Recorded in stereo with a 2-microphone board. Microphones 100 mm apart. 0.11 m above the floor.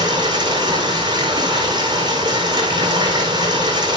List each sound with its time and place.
0.0 s running water: 45° right (ahead or behind), 5.5 m